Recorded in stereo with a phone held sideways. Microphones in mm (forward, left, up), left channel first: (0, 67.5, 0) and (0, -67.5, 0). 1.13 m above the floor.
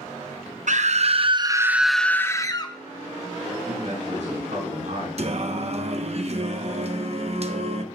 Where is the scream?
65° right (ahead or behind), 0.7 m; by 2.8 s 35° left (ahead or behind), 0.8 m.